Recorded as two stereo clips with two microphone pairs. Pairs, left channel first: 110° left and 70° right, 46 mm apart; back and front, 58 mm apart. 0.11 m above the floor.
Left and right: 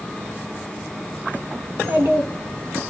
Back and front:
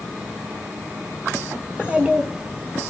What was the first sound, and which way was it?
A child speaking, 65° right.